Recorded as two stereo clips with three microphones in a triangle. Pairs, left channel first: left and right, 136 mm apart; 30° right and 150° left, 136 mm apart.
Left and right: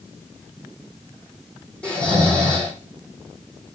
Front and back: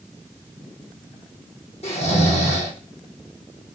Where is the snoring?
10° left, 9 m.